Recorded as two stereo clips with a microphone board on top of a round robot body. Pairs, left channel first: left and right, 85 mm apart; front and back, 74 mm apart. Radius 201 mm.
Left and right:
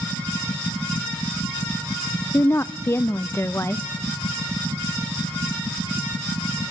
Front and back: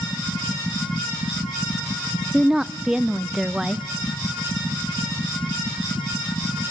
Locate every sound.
2.3 s a woman speaking: 105° left, 0.7 m